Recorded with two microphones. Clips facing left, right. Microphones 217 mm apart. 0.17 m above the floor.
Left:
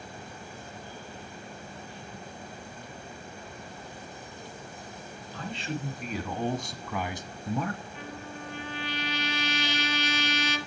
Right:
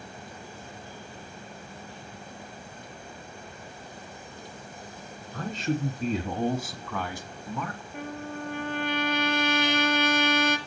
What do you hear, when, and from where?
5.3 s a man speaking: 50° right (ahead or behind), 2 m; by 7.8 s 45° left (ahead or behind), 1.8 m
7.9 s a trumpet: 60° right (ahead or behind), 2.5 m